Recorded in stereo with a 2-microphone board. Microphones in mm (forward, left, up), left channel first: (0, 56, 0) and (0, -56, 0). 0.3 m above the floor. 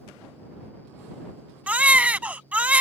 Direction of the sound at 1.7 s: 15° right (ahead or behind).